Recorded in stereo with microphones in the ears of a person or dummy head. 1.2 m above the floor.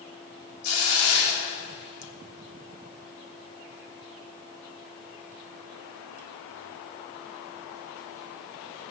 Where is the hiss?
85° left, 3 m.